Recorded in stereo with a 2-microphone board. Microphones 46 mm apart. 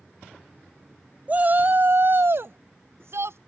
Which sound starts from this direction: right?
A shout, at 1.3 s.